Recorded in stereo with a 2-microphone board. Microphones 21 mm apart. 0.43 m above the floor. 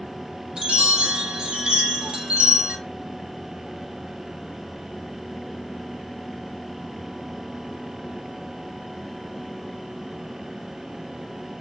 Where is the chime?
55° right (ahead or behind), 0.9 m.